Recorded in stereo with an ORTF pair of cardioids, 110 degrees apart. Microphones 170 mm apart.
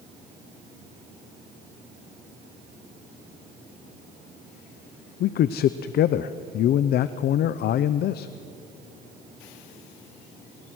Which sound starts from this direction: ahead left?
A man speaking, at 5.2 s.